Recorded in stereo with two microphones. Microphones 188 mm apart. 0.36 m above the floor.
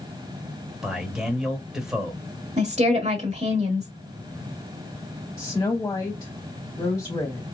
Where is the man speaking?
5° right (ahead or behind), 1.3 m.